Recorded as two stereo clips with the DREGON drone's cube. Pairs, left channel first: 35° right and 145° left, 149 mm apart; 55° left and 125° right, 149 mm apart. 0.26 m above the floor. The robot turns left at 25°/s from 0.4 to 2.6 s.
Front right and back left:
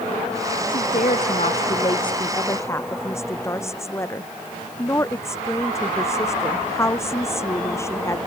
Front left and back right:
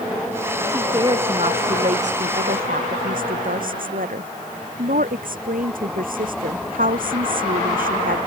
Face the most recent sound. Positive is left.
turn(degrees=-105)